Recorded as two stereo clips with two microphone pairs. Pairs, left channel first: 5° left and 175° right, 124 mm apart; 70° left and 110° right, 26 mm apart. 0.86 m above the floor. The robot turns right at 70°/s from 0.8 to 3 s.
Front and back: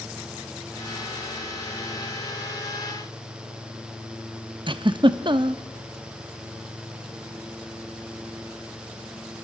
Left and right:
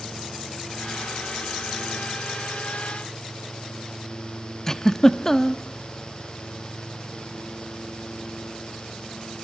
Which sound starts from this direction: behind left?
A giggle, at 4.7 s.